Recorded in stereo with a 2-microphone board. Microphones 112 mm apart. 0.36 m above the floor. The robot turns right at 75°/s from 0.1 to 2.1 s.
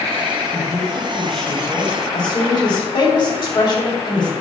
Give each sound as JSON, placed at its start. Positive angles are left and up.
{"t": 0.5, "sound": "a woman speaking", "azimuth_deg": -60, "distance_m": 2.5}